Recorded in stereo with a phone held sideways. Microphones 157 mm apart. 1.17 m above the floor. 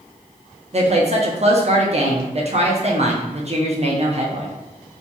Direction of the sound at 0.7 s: 45° right (ahead or behind).